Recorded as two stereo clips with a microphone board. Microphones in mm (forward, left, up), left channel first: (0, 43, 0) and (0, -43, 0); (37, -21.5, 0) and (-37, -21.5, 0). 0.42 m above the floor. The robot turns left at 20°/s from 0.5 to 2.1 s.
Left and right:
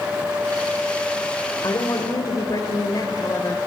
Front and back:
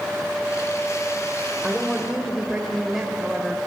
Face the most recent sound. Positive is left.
turn(degrees=95)